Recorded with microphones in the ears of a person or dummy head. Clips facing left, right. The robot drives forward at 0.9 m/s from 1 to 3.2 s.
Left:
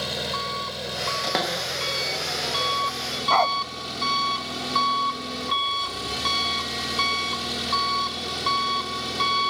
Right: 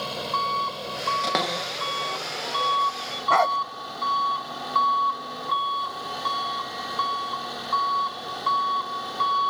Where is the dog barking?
15° right (ahead or behind).